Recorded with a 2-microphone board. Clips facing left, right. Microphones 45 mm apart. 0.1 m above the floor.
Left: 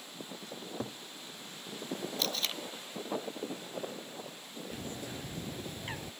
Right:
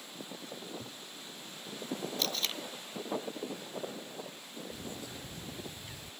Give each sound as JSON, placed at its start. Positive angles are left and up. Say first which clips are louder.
{"t": 0.6, "sound": "a cupboard door", "louder": "left 3 dB", "side_deg": 50}
{"t": 2.2, "sound": "tape being pulled", "louder": "left 1 dB", "side_deg": 5}
{"t": 4.7, "sound": "a bird", "louder": "left 5 dB", "side_deg": 50}